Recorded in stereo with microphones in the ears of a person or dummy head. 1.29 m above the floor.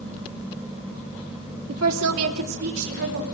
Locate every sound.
1.7 s a woman speaking: 70° right (ahead or behind), 2.5 m; by 3.2 s 65° right (ahead or behind), 3.5 m